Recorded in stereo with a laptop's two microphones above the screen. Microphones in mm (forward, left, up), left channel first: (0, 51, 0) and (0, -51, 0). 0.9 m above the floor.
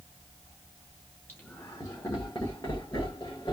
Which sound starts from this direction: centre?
Laughter, at 1.3 s.